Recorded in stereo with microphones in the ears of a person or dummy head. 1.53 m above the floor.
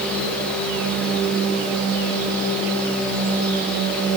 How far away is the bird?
I don't hear a bird.